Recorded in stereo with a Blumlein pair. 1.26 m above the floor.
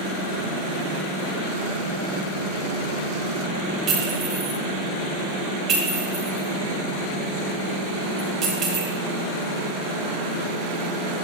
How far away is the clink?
About 4.5 m.